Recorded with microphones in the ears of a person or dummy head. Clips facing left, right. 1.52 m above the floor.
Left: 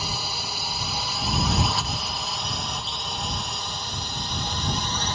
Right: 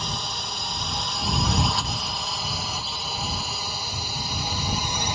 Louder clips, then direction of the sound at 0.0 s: Even; 10° left (ahead or behind).